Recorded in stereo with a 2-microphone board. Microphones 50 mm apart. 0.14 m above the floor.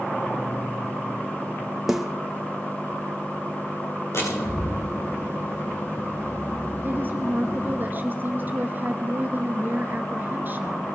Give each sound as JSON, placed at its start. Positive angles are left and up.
{"t": 1.9, "sound": "a snare drum", "side_deg": -5, "distance_m": 1.6}
{"t": 4.1, "sound": "a door slam", "side_deg": 70, "distance_m": 7.0}
{"t": 6.8, "sound": "a woman speaking", "side_deg": -40, "distance_m": 2.0}